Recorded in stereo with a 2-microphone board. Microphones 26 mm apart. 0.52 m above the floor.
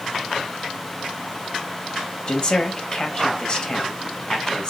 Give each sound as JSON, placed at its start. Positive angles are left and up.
{"t": 2.3, "sound": "a man speaking", "side_deg": 35, "distance_m": 2.0}